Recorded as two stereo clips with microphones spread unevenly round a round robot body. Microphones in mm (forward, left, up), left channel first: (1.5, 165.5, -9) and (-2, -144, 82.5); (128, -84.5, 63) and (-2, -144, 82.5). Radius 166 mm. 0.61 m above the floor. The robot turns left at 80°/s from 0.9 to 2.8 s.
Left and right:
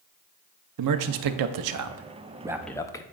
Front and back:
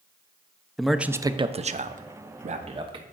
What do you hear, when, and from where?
0.8 s a man speaking: 60° right, 0.8 m; by 3.0 s 150° left, 0.8 m